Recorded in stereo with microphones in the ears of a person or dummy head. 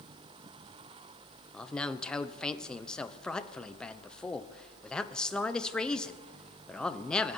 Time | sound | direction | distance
1.5 | a man speaking | 10° left (ahead or behind) | 0.9 m